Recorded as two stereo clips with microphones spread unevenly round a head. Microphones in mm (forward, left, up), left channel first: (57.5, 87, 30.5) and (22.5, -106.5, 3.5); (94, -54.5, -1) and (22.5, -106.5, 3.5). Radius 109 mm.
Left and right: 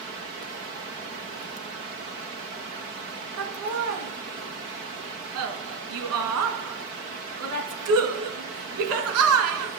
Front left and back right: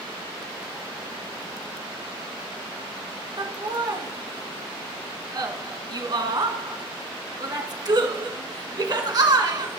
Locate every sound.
3.4 s laughter: 105° right, 1.8 m